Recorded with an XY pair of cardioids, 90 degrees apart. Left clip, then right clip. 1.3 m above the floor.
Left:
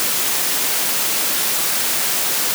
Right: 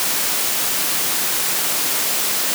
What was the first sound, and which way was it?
Only background noise.